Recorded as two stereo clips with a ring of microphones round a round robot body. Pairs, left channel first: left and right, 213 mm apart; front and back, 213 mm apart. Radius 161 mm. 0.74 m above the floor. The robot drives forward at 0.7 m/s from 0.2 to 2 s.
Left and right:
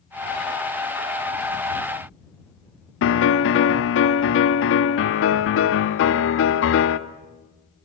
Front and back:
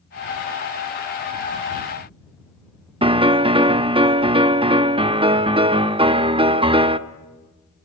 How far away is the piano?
About 1.0 m.